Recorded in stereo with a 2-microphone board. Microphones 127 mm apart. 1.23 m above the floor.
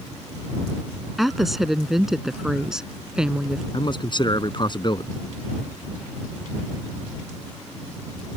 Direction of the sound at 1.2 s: Centre (ahead or behind).